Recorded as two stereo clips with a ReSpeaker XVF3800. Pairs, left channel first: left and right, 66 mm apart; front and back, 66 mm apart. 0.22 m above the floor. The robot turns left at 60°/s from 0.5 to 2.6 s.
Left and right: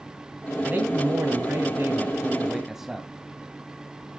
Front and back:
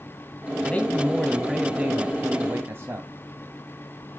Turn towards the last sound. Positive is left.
turn(degrees=-165)